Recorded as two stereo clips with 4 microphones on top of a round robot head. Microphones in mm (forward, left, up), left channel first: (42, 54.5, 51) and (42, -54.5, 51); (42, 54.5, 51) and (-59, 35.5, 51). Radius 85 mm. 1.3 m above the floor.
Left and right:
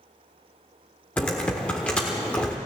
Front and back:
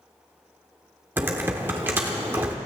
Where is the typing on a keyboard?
160° left, 0.9 m.